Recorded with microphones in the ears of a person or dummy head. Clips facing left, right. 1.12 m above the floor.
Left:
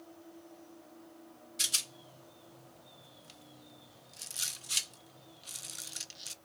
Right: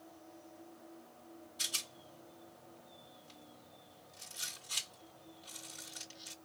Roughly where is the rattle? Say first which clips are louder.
Left 1 dB; left.